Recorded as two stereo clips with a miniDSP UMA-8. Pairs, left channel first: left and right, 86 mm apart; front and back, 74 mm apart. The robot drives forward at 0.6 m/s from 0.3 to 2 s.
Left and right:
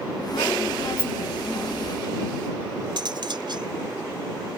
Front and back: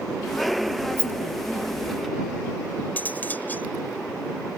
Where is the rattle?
135° right; by 1.1 s 140° right.